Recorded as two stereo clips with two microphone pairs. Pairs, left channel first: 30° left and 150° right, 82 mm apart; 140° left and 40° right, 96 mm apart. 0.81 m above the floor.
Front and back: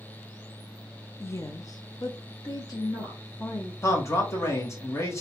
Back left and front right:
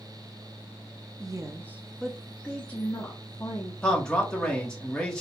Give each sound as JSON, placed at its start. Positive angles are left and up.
{"t": 1.2, "sound": "a woman speaking", "azimuth_deg": -15, "distance_m": 0.5}
{"t": 3.8, "sound": "a man speaking", "azimuth_deg": 65, "distance_m": 1.1}